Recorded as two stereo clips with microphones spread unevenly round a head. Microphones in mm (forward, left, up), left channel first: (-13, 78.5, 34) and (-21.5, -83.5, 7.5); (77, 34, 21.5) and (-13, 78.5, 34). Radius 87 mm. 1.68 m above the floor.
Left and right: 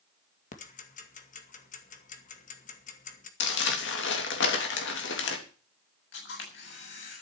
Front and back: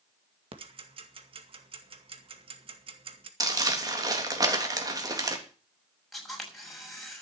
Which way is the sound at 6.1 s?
65° left.